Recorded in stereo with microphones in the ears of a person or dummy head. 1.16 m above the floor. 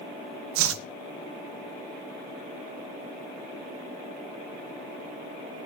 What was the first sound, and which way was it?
Chopping, 75° right (ahead or behind).